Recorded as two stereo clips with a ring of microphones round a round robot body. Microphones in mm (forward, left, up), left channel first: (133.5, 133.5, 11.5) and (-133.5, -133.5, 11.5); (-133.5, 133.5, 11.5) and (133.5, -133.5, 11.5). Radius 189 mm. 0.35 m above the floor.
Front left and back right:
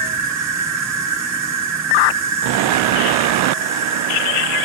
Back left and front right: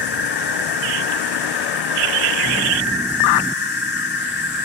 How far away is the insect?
About 1.4 m.